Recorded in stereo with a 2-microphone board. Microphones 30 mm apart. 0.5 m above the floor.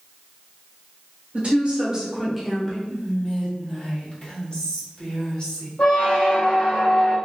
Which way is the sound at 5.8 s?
50° left (ahead or behind).